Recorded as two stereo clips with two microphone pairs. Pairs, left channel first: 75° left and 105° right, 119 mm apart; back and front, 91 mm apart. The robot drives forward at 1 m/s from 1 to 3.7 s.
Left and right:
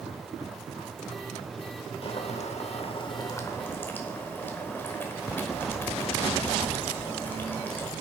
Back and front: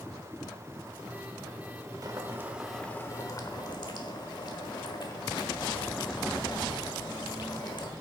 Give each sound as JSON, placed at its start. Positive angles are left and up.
{"t": 2.0, "sound": "boiling", "azimuth_deg": 45, "distance_m": 1.0}